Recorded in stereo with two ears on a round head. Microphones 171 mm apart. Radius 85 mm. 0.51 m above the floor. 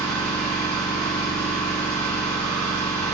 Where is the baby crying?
No baby crying in this recording.